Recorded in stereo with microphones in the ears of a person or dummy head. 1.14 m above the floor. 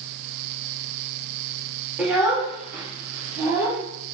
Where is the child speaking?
5° right (ahead or behind), 1.2 m; by 3.8 s 20° right (ahead or behind), 2.5 m.